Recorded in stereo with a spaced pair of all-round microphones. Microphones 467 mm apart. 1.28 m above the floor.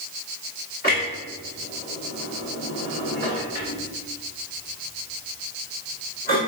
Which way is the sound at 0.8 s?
20° left (ahead or behind).